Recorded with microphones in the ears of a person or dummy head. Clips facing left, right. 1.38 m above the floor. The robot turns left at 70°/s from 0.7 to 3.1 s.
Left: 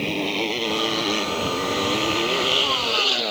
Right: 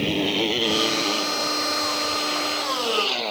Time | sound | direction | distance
0.0 | a motorcycle | 5° right (ahead or behind) | ?